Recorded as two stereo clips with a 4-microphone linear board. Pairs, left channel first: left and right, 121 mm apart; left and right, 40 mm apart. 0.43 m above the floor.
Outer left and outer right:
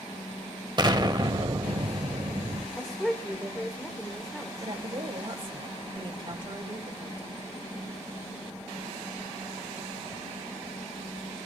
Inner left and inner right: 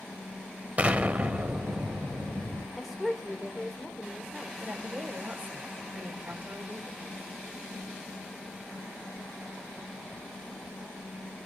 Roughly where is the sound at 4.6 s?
Right.